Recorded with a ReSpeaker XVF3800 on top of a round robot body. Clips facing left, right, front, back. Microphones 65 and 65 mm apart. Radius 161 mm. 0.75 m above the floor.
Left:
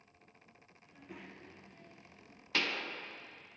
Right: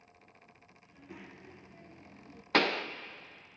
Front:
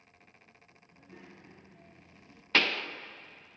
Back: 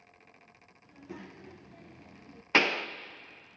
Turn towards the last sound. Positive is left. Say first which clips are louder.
# right 8 dB, back 2 dB
turn(degrees=-110)